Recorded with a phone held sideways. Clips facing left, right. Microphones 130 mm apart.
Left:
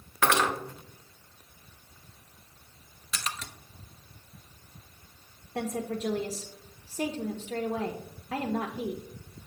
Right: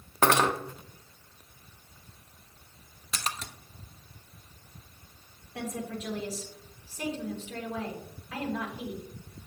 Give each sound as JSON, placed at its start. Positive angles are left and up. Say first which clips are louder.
{"t": 0.2, "sound": "cutlery clinking", "louder": "right 2 dB", "side_deg": -40, "distance_m": 0.9}
{"t": 3.1, "sound": "a splash", "louder": "right 1 dB", "side_deg": -35, "distance_m": 0.6}
{"t": 5.5, "sound": "a woman speaking", "louder": "left 4 dB", "side_deg": 45, "distance_m": 0.8}